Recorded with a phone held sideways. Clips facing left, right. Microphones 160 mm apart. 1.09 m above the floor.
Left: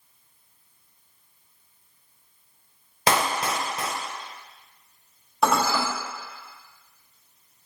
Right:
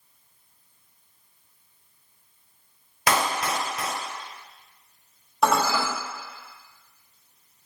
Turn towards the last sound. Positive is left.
turn(degrees=0)  # may be behind; listen again after turning